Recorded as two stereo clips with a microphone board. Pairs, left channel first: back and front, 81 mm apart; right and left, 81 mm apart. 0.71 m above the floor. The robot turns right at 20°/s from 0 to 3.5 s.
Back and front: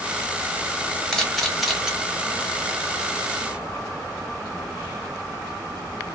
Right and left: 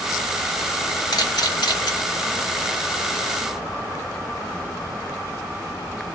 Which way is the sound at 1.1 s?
95° right.